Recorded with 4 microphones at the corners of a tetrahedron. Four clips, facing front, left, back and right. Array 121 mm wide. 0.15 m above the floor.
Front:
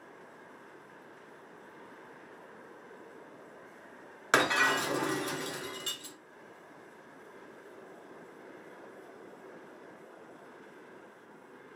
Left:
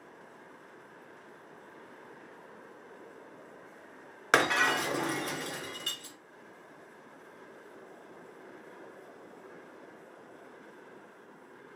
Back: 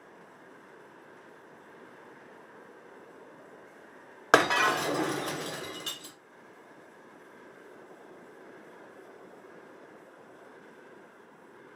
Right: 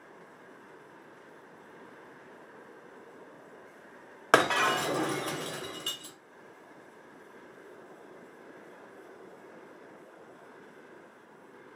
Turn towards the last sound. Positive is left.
turn(degrees=-155)